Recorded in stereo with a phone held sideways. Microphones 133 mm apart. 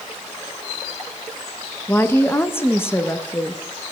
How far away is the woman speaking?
About 0.5 m.